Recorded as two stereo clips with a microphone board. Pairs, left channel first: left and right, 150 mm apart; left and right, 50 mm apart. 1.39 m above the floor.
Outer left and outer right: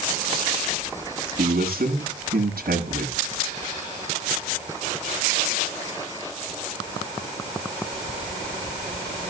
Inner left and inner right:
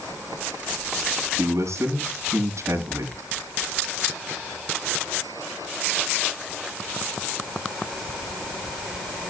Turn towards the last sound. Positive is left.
turn(degrees=-90)